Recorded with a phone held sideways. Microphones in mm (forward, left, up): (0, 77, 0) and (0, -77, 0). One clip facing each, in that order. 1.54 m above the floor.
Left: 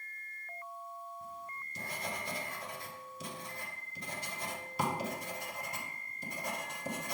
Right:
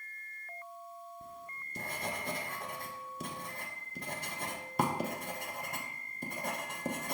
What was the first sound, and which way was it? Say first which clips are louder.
Writing: left 1 dB; 50° right (ahead or behind).